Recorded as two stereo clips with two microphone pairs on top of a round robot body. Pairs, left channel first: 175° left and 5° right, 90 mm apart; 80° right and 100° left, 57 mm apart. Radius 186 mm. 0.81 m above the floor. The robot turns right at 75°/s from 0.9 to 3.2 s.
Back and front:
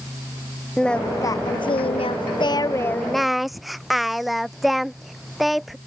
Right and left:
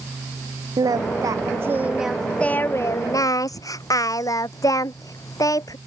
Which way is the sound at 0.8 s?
90° left.